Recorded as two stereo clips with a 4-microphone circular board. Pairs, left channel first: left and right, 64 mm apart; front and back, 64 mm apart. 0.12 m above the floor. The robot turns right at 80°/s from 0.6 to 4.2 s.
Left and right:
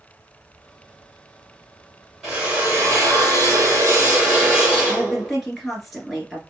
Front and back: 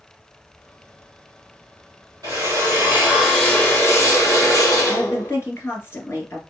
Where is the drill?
Straight behind, 2.5 m; by 5.3 s 20° right, 2.5 m.